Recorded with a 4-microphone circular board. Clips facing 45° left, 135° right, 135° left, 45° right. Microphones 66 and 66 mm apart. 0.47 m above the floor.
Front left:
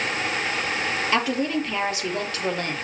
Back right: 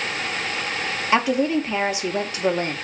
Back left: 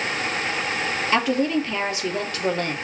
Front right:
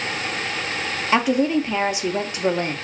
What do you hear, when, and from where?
1.1 s a woman speaking: 90° right, 0.7 m